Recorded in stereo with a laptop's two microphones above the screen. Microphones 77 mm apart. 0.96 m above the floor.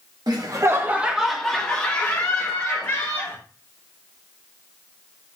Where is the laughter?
60° right (ahead or behind), 0.7 m; by 3.4 s 35° left (ahead or behind), 1.8 m.